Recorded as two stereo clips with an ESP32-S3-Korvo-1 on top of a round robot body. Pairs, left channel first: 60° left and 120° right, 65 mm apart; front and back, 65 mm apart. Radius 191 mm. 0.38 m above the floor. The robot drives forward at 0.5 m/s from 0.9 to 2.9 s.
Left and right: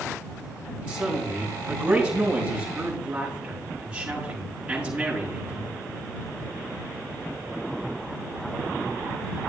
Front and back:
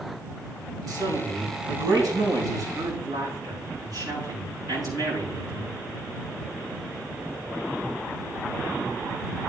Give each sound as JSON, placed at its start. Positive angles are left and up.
{"t": 0.9, "sound": "a man speaking", "azimuth_deg": 170, "distance_m": 6.0}